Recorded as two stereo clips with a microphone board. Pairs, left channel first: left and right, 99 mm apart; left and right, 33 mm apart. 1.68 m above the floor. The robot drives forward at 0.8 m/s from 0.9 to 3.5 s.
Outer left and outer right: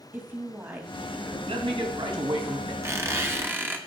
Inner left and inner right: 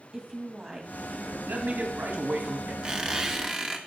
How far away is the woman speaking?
About 2.5 m.